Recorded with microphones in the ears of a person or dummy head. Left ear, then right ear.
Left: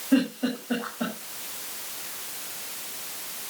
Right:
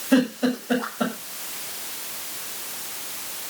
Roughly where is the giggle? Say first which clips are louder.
Right 4 dB; right.